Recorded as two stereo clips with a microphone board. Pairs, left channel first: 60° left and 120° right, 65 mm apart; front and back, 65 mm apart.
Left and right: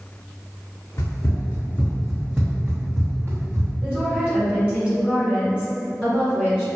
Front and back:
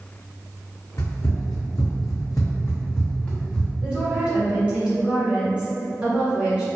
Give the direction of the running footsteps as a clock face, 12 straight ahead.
11 o'clock.